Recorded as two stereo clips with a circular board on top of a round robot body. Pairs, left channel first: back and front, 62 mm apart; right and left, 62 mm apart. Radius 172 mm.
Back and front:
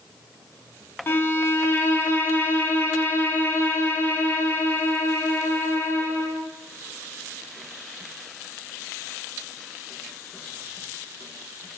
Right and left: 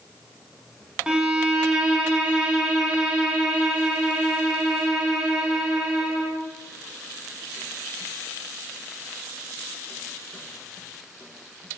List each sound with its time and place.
1.1 s a violin: 160° left, 0.6 m